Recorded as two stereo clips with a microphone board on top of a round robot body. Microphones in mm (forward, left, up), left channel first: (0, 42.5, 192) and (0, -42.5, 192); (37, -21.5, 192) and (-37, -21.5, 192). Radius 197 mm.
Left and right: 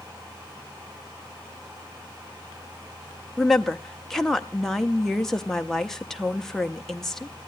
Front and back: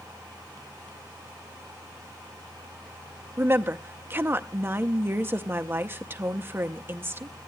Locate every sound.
3.4 s a woman speaking: 170° left, 0.9 m